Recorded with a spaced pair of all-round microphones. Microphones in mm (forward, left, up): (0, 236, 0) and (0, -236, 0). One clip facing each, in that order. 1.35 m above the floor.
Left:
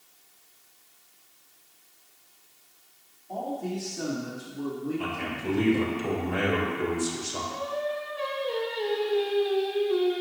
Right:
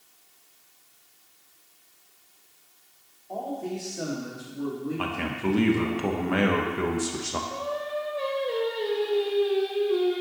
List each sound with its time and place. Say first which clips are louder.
3.3 s a man speaking: even; 35° left (ahead or behind), 3.5 m; by 6.0 s 30° right (ahead or behind), 2.5 m
5.0 s a man speaking: right 3 dB; 80° right, 1.1 m
7.5 s singing: left 3 dB; 10° left (ahead or behind), 1.4 m